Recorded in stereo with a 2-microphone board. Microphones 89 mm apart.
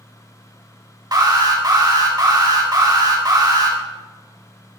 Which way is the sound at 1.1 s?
45° right (ahead or behind).